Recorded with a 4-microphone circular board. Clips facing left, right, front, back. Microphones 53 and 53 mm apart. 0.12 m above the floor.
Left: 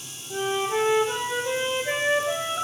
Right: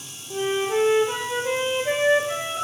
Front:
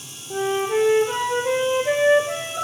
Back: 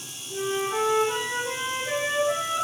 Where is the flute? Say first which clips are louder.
Right 2 dB, front 5 dB; 25° right, 0.7 m.